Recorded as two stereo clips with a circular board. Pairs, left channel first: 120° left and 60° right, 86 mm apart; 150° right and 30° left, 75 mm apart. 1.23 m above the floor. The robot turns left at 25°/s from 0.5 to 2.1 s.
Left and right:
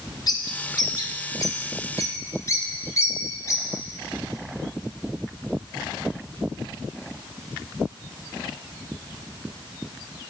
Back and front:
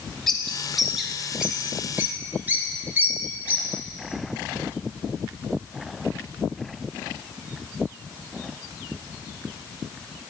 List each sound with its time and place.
0.3 s a bird: 125° left, 0.9 m; by 3.7 s 85° left, 0.9 m